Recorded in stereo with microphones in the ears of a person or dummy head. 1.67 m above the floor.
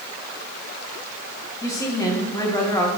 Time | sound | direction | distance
1.6 | a woman speaking | 15° left (ahead or behind) | 2 m